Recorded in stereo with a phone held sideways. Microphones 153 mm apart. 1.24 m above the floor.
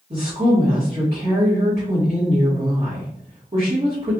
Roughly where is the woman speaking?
Right.